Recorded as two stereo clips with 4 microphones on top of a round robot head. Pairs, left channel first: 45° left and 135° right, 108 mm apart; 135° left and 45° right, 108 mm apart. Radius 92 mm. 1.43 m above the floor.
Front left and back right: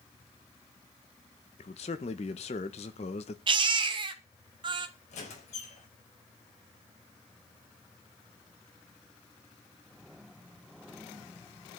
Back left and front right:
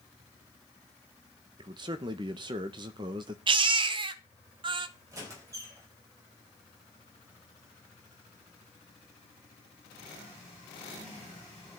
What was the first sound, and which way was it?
A man speaking, 10° left.